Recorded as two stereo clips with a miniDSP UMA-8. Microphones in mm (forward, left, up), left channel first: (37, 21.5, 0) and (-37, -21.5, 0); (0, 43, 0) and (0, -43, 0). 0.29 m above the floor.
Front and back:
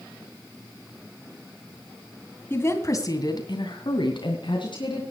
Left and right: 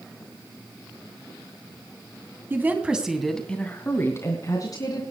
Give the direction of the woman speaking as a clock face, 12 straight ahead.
1 o'clock.